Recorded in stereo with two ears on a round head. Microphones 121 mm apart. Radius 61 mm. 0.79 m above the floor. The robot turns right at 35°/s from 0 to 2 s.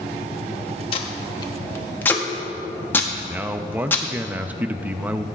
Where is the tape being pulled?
45° left (ahead or behind), 1.3 m; by 4.0 s 15° left (ahead or behind), 1.3 m.